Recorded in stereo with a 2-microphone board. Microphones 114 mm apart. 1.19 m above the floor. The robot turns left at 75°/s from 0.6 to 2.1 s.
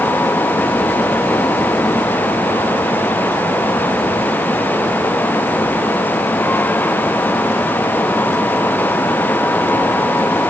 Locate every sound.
Only background noise.